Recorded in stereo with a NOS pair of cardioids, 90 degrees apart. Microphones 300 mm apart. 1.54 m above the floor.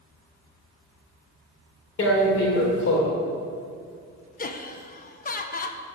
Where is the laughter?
30° left, 1.1 m.